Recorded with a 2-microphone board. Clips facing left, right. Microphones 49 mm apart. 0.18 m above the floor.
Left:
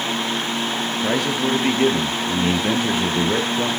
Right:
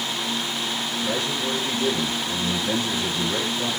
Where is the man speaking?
65° left (ahead or behind), 2.5 m.